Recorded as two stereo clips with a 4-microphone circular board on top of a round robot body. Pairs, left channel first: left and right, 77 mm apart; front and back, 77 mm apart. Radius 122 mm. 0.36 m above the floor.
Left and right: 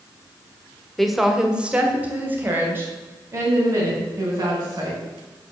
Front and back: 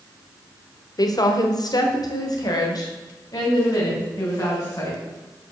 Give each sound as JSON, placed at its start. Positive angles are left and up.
{"t": 1.0, "sound": "a woman speaking", "azimuth_deg": 5, "distance_m": 1.7}